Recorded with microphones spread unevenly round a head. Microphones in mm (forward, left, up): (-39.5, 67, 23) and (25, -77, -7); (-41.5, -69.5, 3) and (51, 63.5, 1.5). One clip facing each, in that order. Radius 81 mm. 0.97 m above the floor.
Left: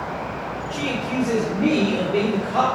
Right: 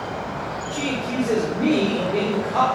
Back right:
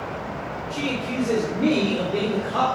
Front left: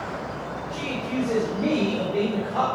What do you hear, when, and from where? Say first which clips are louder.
0.7 s a man speaking: even, back right 2 dB; 140° right, 4.5 m; by 2.6 s 155° right, 3 m